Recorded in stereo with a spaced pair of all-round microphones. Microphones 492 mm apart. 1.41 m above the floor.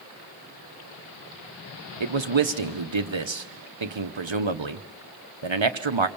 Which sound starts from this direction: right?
A man speaking, at 2.0 s.